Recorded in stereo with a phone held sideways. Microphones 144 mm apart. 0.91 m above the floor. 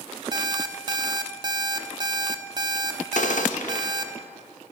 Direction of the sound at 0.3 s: 30° right (ahead or behind).